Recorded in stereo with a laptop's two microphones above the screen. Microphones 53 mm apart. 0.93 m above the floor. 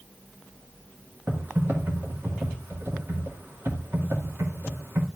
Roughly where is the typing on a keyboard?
Right.